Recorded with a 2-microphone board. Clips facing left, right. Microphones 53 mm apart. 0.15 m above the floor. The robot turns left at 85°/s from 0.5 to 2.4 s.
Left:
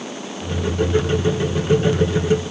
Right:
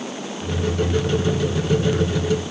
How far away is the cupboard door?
I don't hear a cupboard door.